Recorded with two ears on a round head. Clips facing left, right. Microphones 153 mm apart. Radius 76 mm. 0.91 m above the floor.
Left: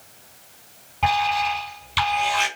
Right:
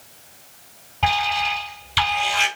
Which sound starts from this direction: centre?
An alarm, at 1.0 s.